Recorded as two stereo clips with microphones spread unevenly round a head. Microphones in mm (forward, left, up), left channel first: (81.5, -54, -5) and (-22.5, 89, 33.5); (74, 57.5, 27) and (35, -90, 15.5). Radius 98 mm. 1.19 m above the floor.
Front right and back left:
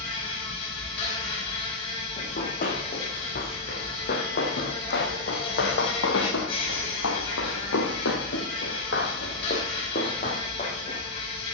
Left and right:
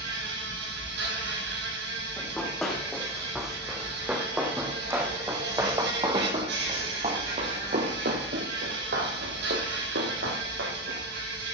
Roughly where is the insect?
Behind right.